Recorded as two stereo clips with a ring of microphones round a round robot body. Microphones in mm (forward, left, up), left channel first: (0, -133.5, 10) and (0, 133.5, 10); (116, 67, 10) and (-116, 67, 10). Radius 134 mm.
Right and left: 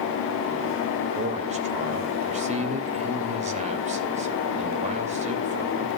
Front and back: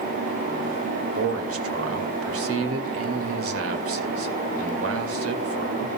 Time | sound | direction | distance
1.1 | a man speaking | 155° left | 2.5 m